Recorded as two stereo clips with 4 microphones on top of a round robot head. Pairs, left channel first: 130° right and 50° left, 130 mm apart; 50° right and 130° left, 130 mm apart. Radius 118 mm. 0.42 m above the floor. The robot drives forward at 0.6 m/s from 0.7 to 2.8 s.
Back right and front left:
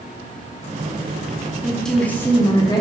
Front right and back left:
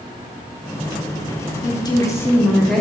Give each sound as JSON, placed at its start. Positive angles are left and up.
{"t": 1.6, "sound": "a woman speaking", "azimuth_deg": -40, "distance_m": 0.9}